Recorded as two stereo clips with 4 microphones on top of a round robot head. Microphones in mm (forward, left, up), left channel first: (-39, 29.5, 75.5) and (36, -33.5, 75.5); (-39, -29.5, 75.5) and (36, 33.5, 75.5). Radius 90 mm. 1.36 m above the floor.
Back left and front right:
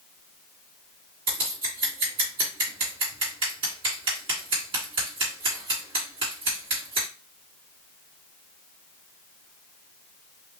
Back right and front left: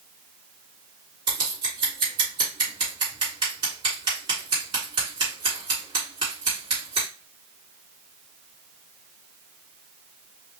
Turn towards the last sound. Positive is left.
turn(degrees=0)